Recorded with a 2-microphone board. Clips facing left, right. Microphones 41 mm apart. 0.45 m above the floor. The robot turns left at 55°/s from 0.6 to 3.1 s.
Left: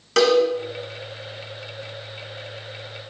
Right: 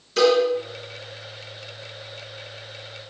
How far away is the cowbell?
About 1.7 m.